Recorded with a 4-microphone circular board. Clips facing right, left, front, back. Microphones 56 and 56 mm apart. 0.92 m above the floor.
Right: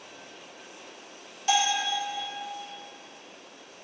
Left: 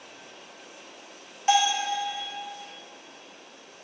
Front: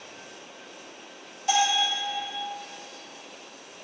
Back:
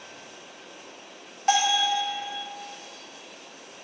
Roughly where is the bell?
Behind left.